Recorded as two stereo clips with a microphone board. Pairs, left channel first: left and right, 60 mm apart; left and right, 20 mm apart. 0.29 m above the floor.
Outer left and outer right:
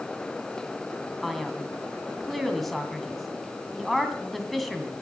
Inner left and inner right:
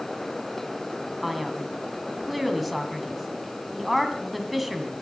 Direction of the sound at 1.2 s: Centre (ahead or behind).